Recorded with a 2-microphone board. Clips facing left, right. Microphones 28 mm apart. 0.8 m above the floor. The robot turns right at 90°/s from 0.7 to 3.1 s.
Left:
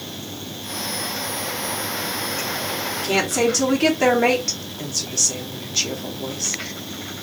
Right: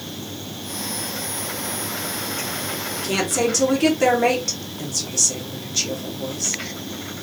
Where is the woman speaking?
Centre (ahead or behind), 1.4 m; by 6.6 s 10° left (ahead or behind), 1.4 m.